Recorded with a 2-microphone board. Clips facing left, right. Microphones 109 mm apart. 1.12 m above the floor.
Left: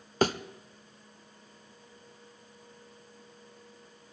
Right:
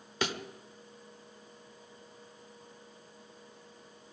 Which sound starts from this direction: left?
A thud, at 0.2 s.